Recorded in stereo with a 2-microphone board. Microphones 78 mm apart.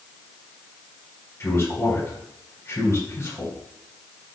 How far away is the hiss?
No hiss in this recording.